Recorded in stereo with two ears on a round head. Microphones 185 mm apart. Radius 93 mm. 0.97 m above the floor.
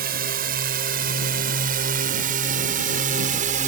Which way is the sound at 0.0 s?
45° right (ahead or behind).